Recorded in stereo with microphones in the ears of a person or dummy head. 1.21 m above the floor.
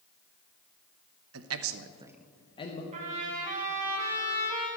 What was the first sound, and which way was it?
A man speaking, 75° right (ahead or behind).